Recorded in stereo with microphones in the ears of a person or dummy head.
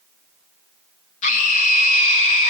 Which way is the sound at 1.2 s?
40° left (ahead or behind).